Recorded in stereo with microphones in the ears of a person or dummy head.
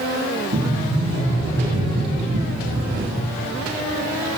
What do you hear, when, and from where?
0.5 s a sliding door: 65° right (ahead or behind), 4 m